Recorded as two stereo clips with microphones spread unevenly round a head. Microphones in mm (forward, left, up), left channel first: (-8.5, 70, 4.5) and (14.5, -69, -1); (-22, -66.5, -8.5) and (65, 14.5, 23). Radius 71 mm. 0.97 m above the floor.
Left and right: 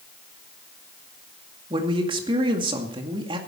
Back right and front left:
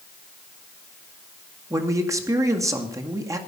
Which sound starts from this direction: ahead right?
A man speaking, at 1.7 s.